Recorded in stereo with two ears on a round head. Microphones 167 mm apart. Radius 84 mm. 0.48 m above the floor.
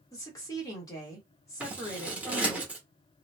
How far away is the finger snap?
No finger snap in this recording.